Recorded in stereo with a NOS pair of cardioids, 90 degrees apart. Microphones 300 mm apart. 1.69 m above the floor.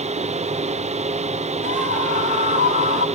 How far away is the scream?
About 4.5 m.